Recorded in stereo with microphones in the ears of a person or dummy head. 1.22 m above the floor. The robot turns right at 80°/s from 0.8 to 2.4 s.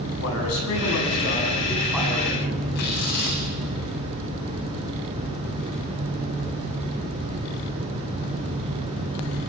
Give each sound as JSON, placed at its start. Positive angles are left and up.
{"t": 0.2, "sound": "a man speaking", "azimuth_deg": 90, "distance_m": 9.0}
{"t": 2.8, "sound": "tearing paper", "side_deg": 55, "distance_m": 9.0}